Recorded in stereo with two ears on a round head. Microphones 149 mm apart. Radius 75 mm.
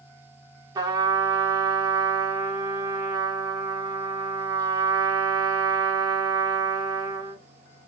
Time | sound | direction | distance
0.8 | a trumpet | 25° right (ahead or behind) | 1.0 m